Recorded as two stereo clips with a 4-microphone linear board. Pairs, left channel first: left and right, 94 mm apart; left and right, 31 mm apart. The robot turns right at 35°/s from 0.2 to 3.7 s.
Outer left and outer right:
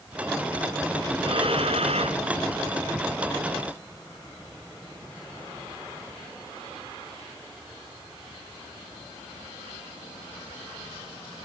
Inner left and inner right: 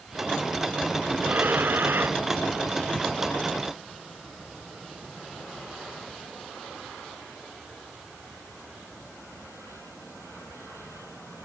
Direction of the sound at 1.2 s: 120° right.